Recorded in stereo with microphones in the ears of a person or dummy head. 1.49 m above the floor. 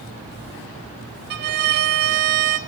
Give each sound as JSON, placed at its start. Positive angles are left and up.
{"t": 1.3, "sound": "a violin", "side_deg": -55, "distance_m": 1.1}